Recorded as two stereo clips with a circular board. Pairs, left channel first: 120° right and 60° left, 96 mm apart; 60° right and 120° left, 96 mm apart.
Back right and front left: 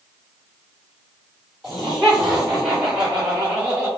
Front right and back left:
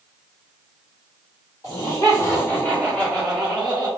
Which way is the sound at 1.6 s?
30° right.